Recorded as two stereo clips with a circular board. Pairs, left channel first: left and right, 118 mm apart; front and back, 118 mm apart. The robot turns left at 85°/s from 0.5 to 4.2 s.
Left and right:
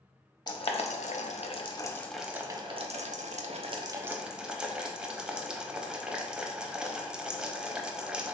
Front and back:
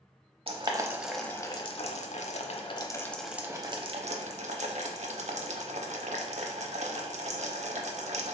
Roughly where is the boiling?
Behind left.